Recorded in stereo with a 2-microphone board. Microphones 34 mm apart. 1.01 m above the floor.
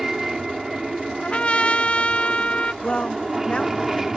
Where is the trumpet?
35° left (ahead or behind).